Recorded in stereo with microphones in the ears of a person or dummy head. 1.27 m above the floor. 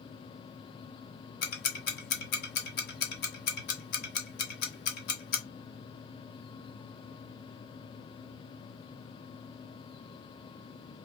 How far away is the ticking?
About 0.9 m.